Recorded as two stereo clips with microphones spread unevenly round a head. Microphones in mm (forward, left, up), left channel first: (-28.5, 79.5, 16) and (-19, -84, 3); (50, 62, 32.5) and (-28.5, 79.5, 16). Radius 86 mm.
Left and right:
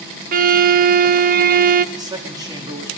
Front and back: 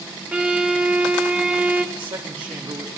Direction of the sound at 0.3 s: 115° right.